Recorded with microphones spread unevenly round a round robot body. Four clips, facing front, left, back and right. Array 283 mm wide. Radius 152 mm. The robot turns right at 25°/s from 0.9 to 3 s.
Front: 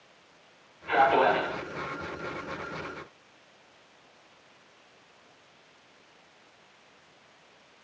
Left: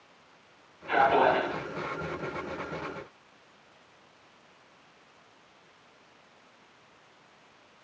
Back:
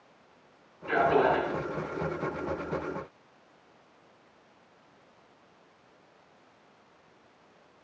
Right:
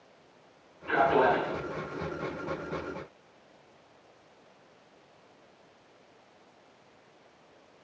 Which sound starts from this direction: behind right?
A man speaking, at 0.9 s.